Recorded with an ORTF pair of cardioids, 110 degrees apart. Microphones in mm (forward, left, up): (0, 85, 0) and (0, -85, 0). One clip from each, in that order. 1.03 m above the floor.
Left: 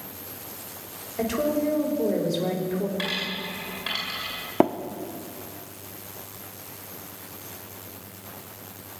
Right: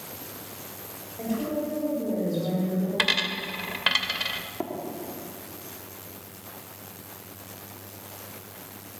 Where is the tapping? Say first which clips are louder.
Left 16 dB; 65° left, 1.0 m.